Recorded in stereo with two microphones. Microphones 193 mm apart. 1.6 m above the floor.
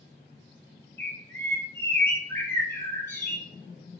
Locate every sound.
1.0 s a bird: 10° left (ahead or behind), 0.7 m